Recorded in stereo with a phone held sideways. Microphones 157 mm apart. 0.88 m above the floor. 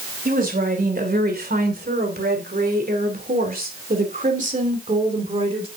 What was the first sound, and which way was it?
A woman speaking, 70° right (ahead or behind).